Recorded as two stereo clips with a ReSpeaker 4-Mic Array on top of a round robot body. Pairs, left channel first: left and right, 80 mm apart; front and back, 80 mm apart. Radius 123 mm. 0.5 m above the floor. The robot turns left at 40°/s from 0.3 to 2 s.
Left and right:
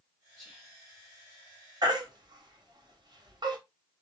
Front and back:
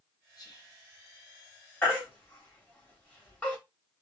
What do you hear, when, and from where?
0.4 s whispering: 5° left, 1.7 m; by 0.8 s 15° right, 1.7 m
1.8 s a baby crying: 65° right, 1.7 m; by 3.6 s 70° right, 1.7 m